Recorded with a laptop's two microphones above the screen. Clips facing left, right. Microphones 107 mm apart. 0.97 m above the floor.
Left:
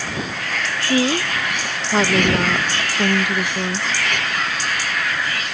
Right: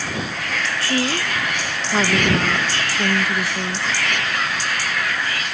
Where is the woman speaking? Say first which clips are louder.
Left 5 dB; 15° left (ahead or behind).